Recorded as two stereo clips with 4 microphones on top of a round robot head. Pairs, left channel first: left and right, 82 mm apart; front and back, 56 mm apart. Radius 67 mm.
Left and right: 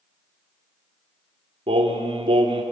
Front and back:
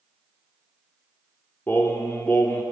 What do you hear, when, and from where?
1.7 s singing: 70° right, 2 m